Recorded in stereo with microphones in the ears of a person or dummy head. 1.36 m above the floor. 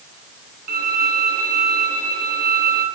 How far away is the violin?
About 4 m.